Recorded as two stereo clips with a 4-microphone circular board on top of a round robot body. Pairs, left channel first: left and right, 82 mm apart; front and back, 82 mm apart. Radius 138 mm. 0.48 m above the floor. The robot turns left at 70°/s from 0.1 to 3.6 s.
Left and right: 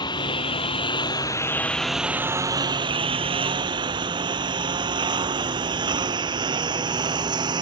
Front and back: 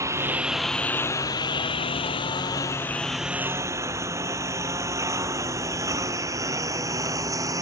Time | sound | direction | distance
0.0 | a lawn mower | 125° left | ?